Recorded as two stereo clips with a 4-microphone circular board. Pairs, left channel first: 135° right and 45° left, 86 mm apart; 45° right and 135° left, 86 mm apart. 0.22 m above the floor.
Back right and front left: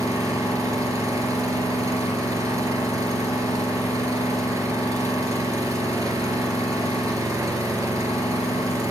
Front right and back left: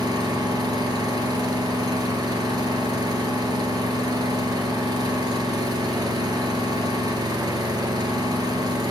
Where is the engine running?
95° left, 3.5 m.